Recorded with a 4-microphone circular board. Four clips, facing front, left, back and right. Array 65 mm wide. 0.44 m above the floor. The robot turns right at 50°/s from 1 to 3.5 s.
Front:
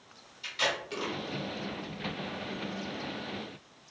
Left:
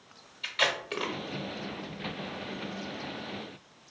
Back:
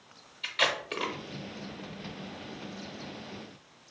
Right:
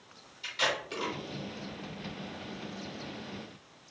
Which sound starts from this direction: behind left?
Tape being pulled, at 0.4 s.